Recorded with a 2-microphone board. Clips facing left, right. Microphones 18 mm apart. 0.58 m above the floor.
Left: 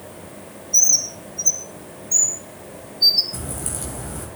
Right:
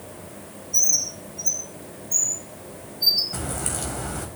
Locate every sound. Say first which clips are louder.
0.7 s a bird: left 5 dB; 30° left (ahead or behind), 5 m
3.3 s a crack: right 2 dB; 30° right (ahead or behind), 4 m